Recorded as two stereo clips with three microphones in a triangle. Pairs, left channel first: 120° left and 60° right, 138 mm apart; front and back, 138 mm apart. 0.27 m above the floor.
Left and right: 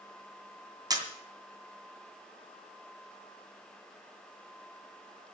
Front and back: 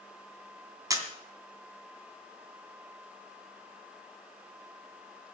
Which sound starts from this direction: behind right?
A camera shutter, at 0.9 s.